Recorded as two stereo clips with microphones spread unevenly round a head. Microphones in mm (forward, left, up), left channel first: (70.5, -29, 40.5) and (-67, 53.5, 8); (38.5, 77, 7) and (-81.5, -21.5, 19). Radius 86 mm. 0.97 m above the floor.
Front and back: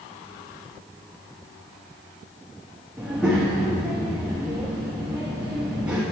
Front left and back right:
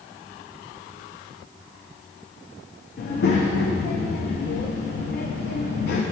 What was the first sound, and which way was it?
A child speaking, 60° left.